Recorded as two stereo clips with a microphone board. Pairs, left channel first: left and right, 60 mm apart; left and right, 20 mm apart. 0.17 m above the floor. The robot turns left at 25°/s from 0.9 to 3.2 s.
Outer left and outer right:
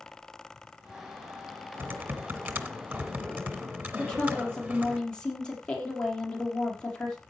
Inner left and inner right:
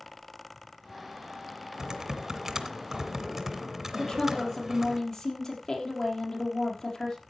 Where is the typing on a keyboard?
95° right, 1.8 m; by 5.0 s 130° right, 1.8 m.